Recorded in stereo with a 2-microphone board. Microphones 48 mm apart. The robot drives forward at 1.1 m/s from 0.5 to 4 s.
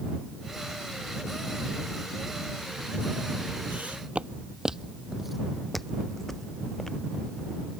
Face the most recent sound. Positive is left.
turn(degrees=10)  # may be behind; listen again after turning